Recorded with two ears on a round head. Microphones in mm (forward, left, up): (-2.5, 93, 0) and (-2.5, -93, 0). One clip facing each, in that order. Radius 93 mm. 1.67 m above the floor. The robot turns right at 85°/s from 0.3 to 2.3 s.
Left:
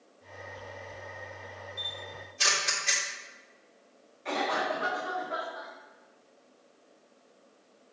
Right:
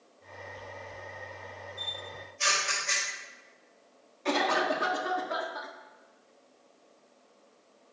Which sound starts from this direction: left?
A camera shutter, at 1.8 s.